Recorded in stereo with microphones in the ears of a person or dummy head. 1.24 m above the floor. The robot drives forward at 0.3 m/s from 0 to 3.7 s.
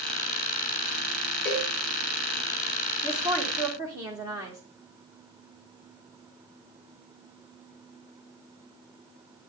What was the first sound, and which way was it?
A cowbell, 10° left (ahead or behind).